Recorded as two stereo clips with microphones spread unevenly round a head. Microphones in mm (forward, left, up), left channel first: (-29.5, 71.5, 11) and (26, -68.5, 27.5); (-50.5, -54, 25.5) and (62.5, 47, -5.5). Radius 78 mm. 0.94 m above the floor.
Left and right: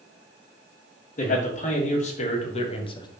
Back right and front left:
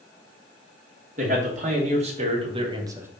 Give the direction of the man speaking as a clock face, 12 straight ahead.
9 o'clock.